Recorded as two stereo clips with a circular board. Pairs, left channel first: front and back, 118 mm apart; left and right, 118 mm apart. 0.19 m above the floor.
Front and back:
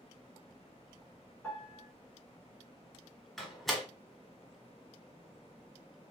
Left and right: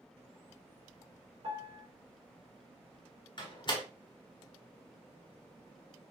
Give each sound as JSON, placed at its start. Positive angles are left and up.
{"t": 1.4, "sound": "a piano", "azimuth_deg": -75, "distance_m": 1.4}
{"t": 3.4, "sound": "a door slam", "azimuth_deg": 90, "distance_m": 0.9}